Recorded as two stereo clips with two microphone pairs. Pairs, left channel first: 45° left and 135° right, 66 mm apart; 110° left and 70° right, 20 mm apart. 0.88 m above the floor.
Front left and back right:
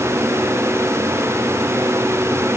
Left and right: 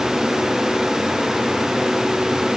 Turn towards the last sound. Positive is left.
No sound to turn to.